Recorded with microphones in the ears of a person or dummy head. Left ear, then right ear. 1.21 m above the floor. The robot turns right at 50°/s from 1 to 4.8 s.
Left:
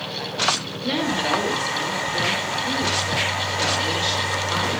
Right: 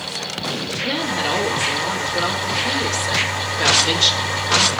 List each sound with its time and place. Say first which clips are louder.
0.8 s a woman speaking: even; 175° left, 4 m; by 4.8 s 5° left, 4 m